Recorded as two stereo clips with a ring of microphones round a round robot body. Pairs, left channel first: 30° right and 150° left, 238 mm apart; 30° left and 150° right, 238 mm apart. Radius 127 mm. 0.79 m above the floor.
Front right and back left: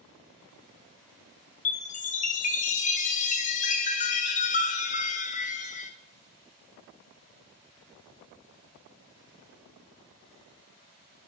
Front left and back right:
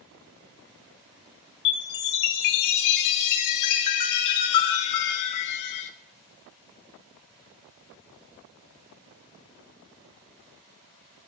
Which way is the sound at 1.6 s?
30° left.